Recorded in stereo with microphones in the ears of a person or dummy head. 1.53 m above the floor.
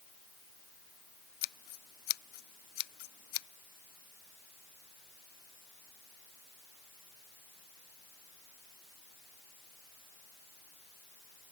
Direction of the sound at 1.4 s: 55° left (ahead or behind).